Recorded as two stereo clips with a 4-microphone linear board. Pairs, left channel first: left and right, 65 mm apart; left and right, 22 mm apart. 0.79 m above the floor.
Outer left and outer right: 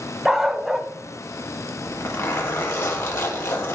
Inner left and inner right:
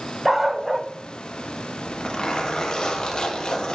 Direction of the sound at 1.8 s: 45° left (ahead or behind).